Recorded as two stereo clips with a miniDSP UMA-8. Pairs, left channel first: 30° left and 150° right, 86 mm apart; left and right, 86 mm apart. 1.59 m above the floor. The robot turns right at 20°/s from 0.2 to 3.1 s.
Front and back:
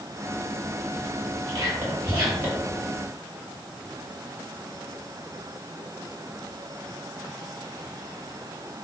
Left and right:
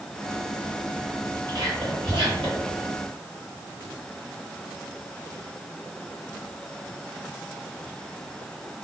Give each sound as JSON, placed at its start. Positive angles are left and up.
{"t": 1.5, "sound": "whispering", "azimuth_deg": -125, "distance_m": 1.2}